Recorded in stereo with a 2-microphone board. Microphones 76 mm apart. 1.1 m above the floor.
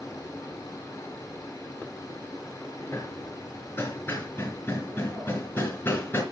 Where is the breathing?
No breathing in this recording.